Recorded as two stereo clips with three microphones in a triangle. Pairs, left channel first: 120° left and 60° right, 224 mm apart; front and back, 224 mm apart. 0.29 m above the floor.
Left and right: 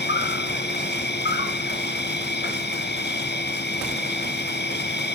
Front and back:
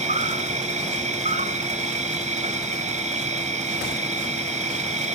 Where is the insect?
135° left, 0.9 m.